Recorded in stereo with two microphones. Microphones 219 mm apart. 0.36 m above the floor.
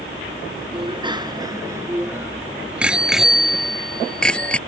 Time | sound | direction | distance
0.7 | a bicycle bell | 25° right (ahead or behind) | ?